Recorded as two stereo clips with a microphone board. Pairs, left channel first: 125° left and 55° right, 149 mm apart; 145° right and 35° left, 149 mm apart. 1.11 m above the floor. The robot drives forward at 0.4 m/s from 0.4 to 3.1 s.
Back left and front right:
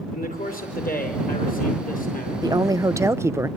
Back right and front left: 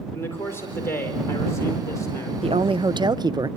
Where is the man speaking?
140° left, 4.5 m; by 2.3 s 145° left, 5 m.